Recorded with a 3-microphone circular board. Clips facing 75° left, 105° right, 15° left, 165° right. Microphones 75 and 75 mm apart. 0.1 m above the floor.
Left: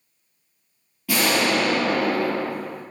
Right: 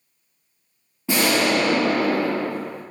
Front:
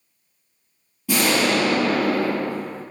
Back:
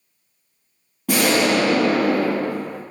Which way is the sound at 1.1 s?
160° right.